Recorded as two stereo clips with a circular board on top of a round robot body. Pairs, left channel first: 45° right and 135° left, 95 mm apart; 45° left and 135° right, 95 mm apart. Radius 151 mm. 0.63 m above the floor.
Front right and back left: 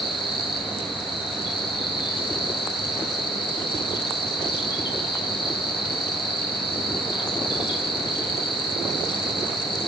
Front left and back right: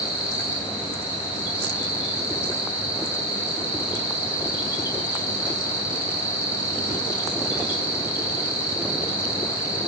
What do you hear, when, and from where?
0.0 s an insect: 15° right, 7.5 m